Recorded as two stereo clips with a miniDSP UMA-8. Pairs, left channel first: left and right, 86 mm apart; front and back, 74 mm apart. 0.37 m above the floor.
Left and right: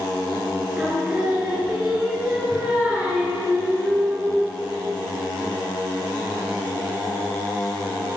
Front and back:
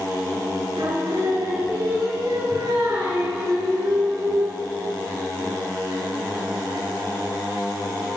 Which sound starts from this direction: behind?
Singing, at 0.8 s.